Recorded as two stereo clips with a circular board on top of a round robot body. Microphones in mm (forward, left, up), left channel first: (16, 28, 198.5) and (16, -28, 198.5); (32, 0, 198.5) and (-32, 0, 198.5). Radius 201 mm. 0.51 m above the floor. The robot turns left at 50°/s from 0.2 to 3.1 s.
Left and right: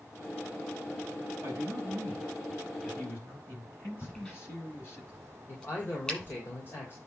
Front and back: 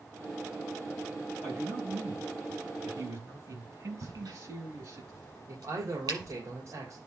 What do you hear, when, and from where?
1.4 s a man speaking: 135° right, 5.5 m; by 5.0 s 140° left, 5.5 m
4.0 s a crack: 165° left, 7 m
5.5 s a man speaking: 140° left, 3.5 m